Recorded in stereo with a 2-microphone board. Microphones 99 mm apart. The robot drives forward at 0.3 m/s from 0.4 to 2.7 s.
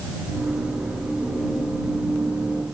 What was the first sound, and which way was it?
Only background noise.